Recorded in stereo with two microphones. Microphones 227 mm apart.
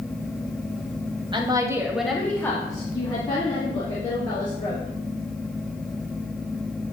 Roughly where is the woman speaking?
Right.